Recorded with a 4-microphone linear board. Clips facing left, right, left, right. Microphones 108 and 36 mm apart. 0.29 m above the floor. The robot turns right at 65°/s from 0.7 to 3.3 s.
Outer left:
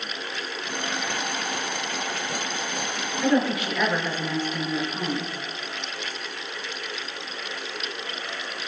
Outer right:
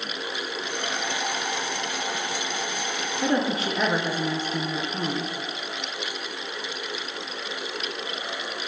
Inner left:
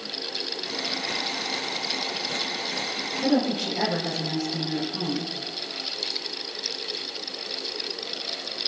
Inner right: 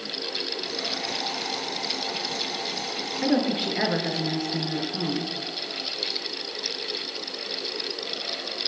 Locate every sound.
3.2 s a woman speaking: 35° right (ahead or behind), 3.5 m; by 5.3 s 30° right (ahead or behind), 3.5 m